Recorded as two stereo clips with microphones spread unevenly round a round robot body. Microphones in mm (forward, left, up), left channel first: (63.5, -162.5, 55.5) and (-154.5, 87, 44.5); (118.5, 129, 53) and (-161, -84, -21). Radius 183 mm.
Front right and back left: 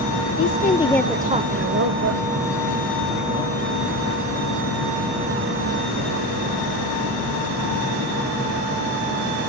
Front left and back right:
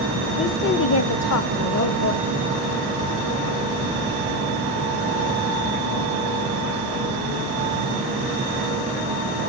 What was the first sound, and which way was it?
A woman speaking, 40° right.